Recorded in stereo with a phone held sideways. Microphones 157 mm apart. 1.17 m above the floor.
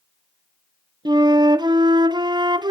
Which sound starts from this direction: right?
A flute, at 1.1 s.